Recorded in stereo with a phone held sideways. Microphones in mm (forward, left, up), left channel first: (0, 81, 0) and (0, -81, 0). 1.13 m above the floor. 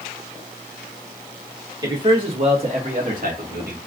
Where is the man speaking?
25° right (ahead or behind), 1.6 m; by 3.8 s 70° right (ahead or behind), 1.5 m.